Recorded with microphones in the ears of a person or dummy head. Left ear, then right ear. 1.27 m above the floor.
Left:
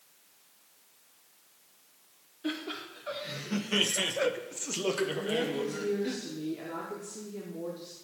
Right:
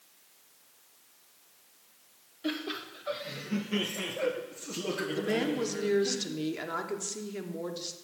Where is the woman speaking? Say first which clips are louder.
Right 1 dB; 55° right (ahead or behind), 0.8 m.